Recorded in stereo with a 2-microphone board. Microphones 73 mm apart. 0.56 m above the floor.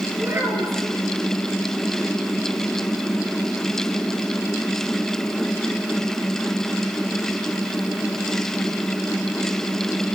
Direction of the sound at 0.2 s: 35° right (ahead or behind).